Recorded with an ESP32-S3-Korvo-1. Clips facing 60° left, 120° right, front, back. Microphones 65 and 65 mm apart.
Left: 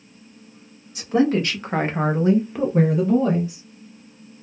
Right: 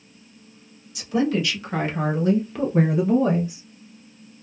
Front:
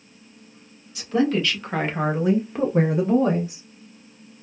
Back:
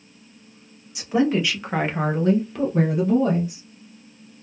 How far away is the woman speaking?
About 1.7 m.